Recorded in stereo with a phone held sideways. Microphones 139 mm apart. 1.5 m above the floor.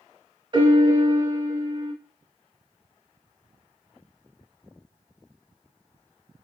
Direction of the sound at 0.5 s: 35° right (ahead or behind).